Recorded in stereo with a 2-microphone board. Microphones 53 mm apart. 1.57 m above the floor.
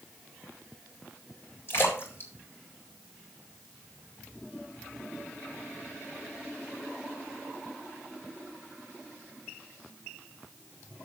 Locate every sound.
1.7 s a splash: 50° left (ahead or behind), 4 m